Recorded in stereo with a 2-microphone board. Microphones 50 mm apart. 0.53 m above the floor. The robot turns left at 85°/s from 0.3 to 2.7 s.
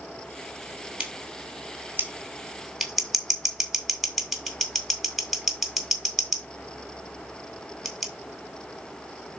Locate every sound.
1.0 s scissors: 25° right (ahead or behind), 1.7 m; by 8.1 s centre (ahead or behind), 1.7 m